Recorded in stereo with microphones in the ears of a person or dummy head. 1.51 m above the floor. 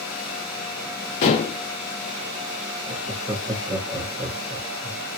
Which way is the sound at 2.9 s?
15° right (ahead or behind).